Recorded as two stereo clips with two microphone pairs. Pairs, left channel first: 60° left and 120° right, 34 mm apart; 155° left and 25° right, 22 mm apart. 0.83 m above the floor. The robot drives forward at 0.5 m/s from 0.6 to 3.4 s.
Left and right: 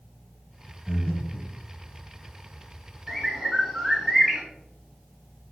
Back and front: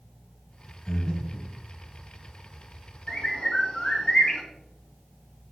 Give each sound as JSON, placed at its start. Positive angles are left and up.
{"t": 0.9, "sound": "breathing", "azimuth_deg": 85, "distance_m": 1.4}
{"t": 3.1, "sound": "a bird", "azimuth_deg": 150, "distance_m": 1.6}